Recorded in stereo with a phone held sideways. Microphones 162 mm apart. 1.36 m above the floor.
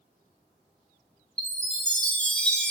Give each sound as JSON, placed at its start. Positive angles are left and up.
{"t": 1.4, "sound": "a chime", "side_deg": 5, "distance_m": 0.6}